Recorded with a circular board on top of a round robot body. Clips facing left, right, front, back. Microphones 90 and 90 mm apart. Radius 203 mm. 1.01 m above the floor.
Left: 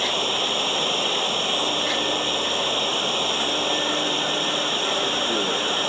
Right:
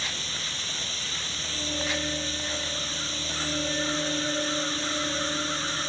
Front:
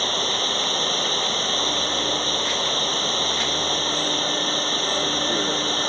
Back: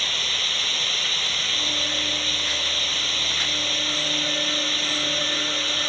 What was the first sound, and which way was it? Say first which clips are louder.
Running water: left 12 dB, front 7 dB; 60° left.